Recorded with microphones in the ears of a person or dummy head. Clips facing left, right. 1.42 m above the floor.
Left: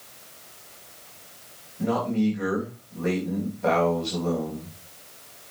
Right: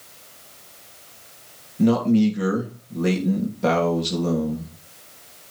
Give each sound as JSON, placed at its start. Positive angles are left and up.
{"t": 1.8, "sound": "a man speaking", "side_deg": -55, "distance_m": 2.5}